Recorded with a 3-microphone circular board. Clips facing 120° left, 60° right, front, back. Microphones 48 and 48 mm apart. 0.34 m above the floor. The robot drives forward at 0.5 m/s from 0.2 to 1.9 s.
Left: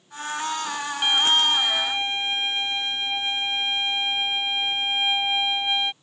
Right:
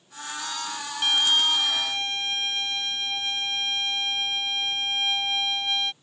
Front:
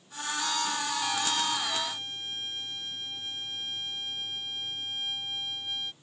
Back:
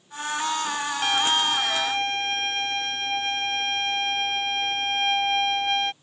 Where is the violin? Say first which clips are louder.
Left 2 dB, back 10 dB; 165° right; by 5.9 s 170° right.